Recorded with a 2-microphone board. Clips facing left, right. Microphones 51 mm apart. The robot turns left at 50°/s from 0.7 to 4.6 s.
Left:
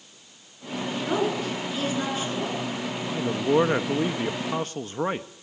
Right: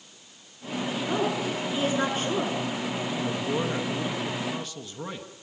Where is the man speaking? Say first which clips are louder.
Left 8 dB; 140° left, 1.1 m; by 5.3 s 65° left, 1.1 m.